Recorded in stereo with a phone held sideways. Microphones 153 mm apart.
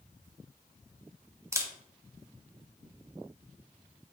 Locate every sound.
1.5 s a camera shutter: 20° right (ahead or behind), 0.5 m